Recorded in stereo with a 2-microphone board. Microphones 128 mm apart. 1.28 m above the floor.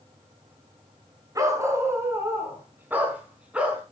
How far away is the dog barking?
About 3.5 m.